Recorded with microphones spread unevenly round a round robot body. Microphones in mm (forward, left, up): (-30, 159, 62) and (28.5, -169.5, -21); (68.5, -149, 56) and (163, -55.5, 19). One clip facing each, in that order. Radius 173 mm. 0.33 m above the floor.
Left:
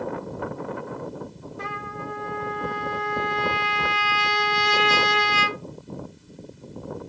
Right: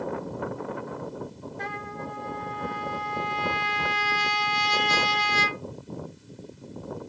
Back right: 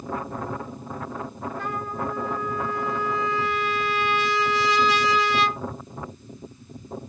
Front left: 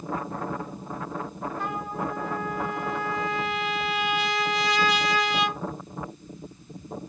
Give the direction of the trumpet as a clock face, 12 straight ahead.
6 o'clock.